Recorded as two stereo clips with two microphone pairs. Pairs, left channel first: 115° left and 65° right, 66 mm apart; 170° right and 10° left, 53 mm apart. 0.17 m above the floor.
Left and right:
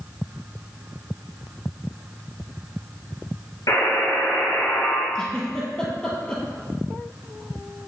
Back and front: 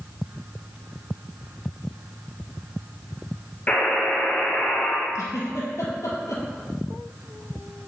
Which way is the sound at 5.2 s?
170° right.